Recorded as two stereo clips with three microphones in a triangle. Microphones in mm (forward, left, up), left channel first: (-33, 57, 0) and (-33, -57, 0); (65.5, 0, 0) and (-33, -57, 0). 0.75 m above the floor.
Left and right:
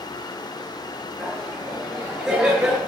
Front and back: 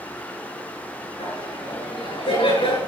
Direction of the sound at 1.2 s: Straight ahead.